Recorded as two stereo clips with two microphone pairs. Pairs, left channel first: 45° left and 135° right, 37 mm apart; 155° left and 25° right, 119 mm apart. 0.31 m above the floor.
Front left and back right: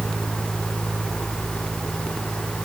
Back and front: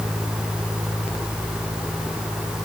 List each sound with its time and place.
Only background noise.